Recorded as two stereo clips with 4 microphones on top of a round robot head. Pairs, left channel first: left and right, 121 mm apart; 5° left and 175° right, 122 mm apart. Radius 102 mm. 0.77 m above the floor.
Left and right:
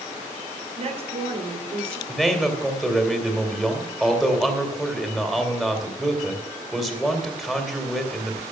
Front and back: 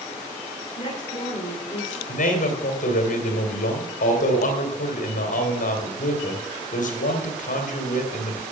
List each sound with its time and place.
0.8 s a woman speaking: 60° right, 3.5 m
2.1 s a man speaking: straight ahead, 2.5 m